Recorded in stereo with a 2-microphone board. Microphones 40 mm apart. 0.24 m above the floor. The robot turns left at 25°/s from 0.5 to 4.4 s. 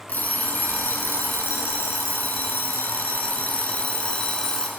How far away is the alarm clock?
About 1.5 m.